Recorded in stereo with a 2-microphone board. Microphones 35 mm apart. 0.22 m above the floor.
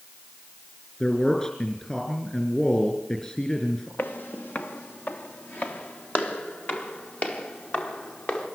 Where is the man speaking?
25° left (ahead or behind), 4 m.